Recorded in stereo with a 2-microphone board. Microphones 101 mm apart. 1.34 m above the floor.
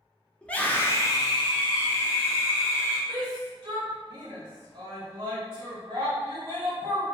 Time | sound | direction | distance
0.4 | a scream | 10° left (ahead or behind) | 0.7 m
3.1 | a shout | 55° right (ahead or behind) | 1.0 m